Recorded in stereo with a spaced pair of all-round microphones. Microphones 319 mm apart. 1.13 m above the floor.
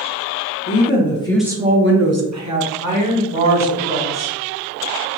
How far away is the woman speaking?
About 0.7 m.